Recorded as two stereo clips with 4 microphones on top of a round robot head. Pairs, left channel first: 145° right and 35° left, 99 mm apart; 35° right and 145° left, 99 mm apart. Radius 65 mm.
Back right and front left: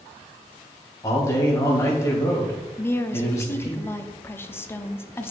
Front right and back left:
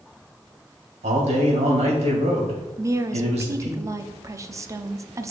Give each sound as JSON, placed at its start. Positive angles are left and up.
{"t": 1.0, "sound": "a man speaking", "azimuth_deg": 155, "distance_m": 2.5}
{"t": 2.8, "sound": "a woman speaking", "azimuth_deg": 170, "distance_m": 0.7}